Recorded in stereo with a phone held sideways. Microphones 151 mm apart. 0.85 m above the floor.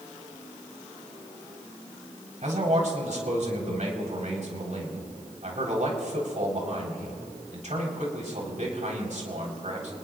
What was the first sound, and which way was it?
A man speaking, 60° right (ahead or behind).